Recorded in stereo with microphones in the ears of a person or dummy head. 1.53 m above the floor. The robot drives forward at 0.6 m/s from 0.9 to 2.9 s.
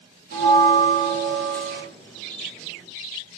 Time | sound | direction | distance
0.3 | a bell | 55° right (ahead or behind) | 1.6 m